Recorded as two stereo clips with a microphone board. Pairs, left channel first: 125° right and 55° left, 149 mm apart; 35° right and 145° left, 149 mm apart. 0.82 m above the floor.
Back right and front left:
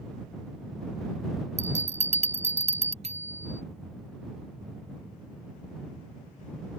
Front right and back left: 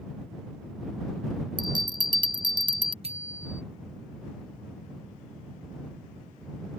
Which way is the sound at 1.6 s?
90° left.